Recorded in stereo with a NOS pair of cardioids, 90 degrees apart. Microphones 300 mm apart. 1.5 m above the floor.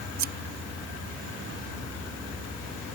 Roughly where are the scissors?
Right.